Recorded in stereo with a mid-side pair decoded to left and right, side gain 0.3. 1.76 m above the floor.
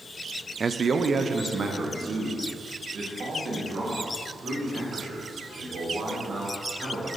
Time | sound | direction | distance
0.6 | a man speaking | 45° right | 0.6 m